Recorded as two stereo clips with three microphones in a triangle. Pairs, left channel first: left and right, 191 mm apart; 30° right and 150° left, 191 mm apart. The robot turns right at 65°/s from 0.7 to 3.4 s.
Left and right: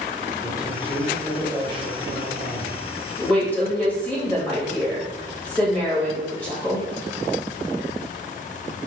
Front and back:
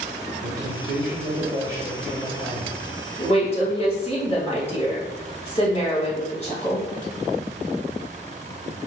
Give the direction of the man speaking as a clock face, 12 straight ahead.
7 o'clock.